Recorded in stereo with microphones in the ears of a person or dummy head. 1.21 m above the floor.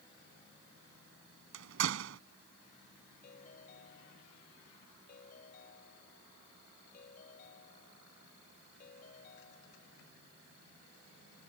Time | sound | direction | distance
1.5 | a door slam | 75° right (ahead or behind) | ?
3.2 | a ringtone | 45° left (ahead or behind) | ?